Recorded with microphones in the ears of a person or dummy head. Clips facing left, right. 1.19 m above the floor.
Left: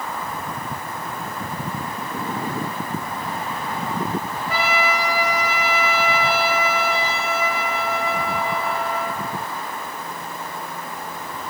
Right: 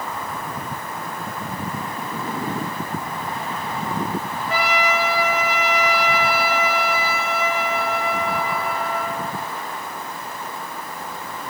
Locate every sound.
4.5 s a trumpet: 75° left (ahead or behind), 3 m